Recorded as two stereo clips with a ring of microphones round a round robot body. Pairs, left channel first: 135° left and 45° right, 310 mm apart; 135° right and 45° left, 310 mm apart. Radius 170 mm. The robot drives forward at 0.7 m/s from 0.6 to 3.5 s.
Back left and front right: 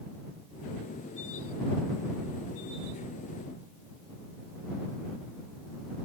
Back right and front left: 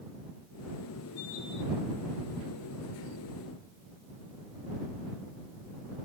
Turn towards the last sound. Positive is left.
No sound to turn to.